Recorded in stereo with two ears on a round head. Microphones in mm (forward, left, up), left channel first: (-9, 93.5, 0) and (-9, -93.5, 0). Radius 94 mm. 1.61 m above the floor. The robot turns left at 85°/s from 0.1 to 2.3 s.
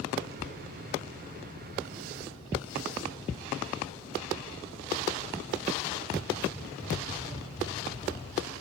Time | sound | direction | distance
0.4 | whispering | 55° left (ahead or behind) | 4.5 m